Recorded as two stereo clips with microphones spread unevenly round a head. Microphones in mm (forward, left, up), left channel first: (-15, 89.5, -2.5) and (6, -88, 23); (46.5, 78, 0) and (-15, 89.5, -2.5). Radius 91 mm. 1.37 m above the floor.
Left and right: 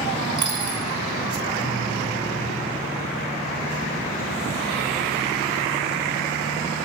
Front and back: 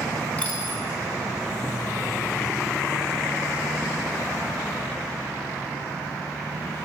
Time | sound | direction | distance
0.4 | a dropped coin | 55° right | 1.0 m